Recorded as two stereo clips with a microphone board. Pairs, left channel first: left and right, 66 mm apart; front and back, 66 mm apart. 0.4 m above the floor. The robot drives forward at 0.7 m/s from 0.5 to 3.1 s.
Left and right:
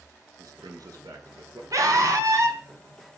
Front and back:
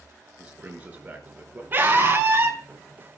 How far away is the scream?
About 4.5 m.